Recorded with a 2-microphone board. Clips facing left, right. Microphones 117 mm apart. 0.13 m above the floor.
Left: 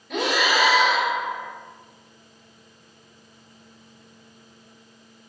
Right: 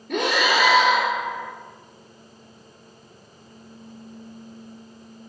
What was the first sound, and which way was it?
Breathing, 55° right (ahead or behind).